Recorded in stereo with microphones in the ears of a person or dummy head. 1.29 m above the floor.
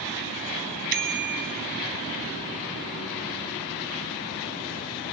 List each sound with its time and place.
0.9 s a bicycle bell: 45° right (ahead or behind), 3.5 m